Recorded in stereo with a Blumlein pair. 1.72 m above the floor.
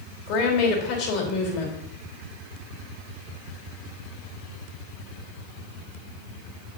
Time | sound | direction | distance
0.3 | a woman speaking | 40° left | 4 m